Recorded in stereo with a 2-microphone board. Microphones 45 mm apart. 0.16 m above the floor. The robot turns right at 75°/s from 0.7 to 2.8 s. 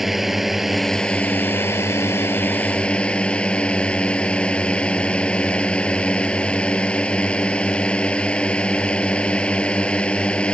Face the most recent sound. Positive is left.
turn(degrees=150)